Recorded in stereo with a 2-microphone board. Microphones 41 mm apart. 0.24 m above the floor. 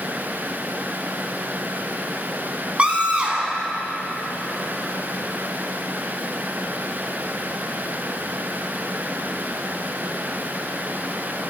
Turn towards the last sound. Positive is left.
turn(degrees=-30)  # may be behind; listen again after turning